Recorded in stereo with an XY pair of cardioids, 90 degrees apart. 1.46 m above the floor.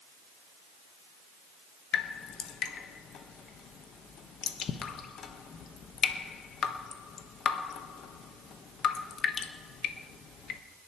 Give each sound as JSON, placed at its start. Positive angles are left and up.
{"t": 1.9, "sound": "dripping", "azimuth_deg": 70, "distance_m": 1.2}